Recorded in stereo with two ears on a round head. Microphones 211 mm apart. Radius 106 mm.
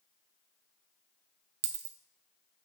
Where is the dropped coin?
50° right (ahead or behind), 0.8 m.